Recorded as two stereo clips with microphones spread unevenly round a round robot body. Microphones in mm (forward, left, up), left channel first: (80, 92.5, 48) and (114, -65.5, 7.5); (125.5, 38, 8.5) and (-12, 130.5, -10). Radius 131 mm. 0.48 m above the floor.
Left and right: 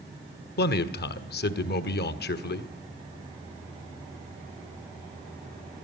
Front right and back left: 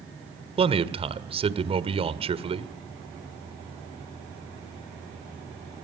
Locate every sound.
0.6 s a man speaking: 105° left, 1.6 m